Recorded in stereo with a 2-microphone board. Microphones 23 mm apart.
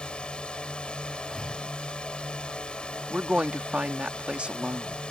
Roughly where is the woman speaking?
Right.